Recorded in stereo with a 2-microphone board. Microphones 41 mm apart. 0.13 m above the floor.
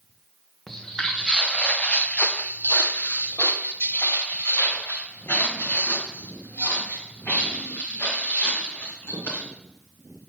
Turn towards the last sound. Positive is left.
turn(degrees=65)  # may be behind; listen again after turning